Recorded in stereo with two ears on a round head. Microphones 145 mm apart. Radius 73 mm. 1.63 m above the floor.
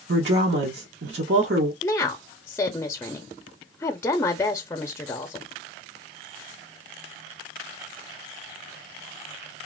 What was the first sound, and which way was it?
A woman speaking, 70° right (ahead or behind).